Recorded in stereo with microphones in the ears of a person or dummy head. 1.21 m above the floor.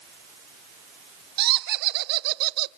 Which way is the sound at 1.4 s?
55° right (ahead or behind).